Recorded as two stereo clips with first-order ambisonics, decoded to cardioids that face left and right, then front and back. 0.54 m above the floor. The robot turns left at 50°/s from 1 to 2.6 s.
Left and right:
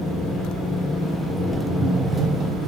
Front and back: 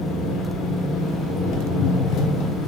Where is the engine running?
45° left, 1.6 m; by 2.7 s 35° right, 1.6 m.